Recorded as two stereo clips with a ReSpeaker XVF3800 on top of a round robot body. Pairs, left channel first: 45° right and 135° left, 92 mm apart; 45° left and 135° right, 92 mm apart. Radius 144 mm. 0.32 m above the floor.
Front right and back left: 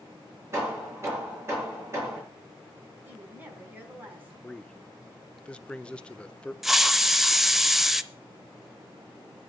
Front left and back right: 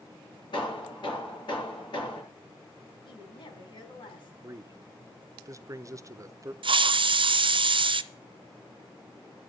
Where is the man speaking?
115° right, 1.0 m.